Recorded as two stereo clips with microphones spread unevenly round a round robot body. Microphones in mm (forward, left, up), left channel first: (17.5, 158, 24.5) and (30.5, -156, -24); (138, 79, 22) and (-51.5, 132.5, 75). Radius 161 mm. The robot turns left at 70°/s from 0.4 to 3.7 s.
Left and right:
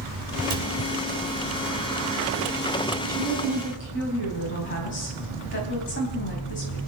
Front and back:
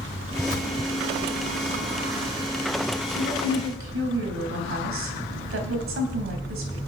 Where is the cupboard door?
95° right, 4.5 m; by 0.7 s 110° right, 4.5 m.